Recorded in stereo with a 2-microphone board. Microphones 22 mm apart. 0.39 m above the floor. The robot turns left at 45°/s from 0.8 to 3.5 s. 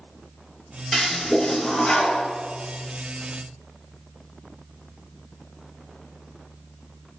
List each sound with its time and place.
0.9 s a toilet flushing: 175° right, 0.6 m; by 2.2 s 125° left, 0.6 m